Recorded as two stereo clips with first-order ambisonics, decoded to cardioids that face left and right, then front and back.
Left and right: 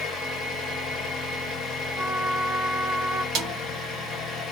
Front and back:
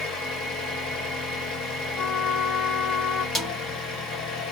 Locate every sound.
0.0 s an engine running: 30° left, 1.2 m
2.0 s a trumpet: 40° right, 1.0 m
3.4 s a snare drum: 70° right, 0.9 m